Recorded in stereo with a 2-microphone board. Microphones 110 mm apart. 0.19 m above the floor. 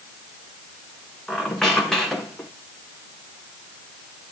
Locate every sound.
1.3 s a squeak: 5° left (ahead or behind), 3 m